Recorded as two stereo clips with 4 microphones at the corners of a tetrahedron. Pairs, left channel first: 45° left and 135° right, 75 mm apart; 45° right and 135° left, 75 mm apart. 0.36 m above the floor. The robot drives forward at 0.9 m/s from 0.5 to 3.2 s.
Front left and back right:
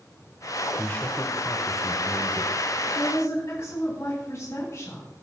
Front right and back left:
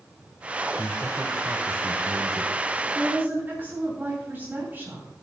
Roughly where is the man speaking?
Ahead left.